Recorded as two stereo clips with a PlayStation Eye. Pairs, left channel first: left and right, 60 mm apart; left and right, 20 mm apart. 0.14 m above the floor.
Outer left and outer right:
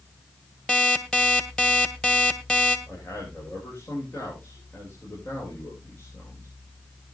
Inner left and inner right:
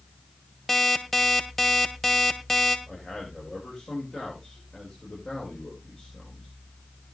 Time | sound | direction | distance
0.7 | an alarm clock | 15° left (ahead or behind) | 1.6 m
2.9 | a man speaking | 35° left (ahead or behind) | 8 m